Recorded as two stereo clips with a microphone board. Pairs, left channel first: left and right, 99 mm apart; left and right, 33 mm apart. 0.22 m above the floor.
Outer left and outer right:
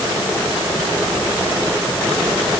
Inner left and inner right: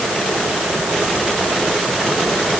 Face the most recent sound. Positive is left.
No sound to turn to.